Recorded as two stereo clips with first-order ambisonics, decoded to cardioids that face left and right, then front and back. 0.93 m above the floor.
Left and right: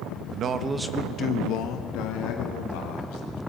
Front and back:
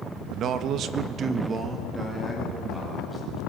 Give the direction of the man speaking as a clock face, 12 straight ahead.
4 o'clock.